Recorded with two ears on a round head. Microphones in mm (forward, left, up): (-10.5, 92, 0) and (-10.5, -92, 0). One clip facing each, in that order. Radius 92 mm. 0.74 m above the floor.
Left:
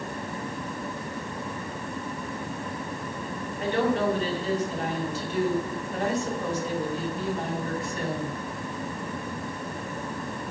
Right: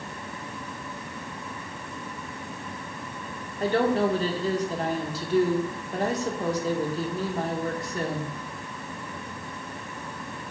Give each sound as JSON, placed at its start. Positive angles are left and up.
{"t": 3.6, "sound": "a woman speaking", "side_deg": -35, "distance_m": 1.7}